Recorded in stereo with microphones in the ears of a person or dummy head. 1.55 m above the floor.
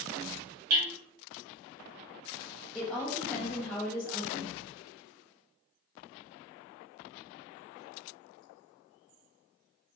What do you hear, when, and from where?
0.7 s hammering: 80° right, 0.9 m
2.8 s a woman speaking: 10° left (ahead or behind), 0.5 m